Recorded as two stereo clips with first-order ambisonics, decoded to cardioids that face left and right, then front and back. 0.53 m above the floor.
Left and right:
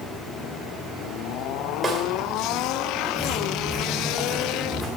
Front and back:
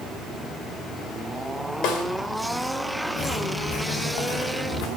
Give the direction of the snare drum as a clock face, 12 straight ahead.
1 o'clock.